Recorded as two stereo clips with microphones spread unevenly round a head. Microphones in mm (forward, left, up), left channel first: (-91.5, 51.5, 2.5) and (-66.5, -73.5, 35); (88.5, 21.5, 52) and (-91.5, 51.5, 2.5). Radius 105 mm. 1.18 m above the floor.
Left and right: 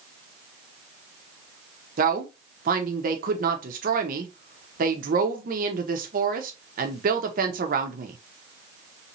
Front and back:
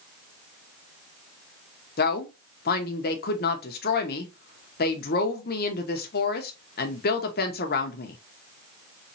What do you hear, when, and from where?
2.0 s a woman speaking: 55° right, 0.8 m